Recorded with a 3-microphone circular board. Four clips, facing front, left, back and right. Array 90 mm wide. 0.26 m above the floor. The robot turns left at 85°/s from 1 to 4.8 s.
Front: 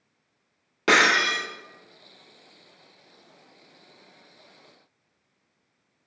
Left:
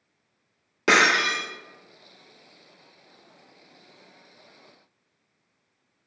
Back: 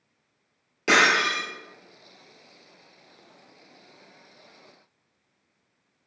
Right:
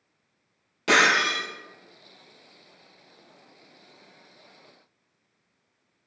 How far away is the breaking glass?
About 1.2 m.